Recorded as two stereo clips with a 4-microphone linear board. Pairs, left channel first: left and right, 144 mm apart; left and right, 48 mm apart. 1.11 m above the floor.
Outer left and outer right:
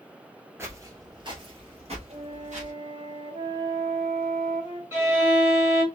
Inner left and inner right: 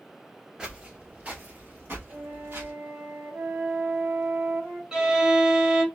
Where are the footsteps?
15° right (ahead or behind), 1.1 m; by 2.7 s 55° right (ahead or behind), 1.9 m.